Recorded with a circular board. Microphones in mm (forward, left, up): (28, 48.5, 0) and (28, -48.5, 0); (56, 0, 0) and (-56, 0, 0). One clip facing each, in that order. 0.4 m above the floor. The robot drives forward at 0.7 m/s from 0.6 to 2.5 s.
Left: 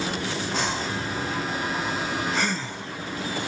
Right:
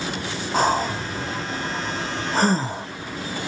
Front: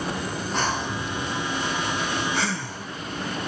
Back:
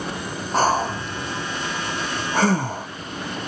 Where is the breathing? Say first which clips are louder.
Right 11 dB, back 9 dB; 130° right; by 2.9 s 140° right.